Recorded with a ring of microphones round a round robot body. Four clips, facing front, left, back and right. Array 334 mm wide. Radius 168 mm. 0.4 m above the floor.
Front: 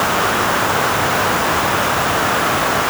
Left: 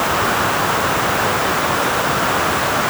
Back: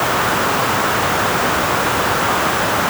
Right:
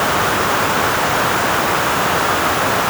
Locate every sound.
Only background noise.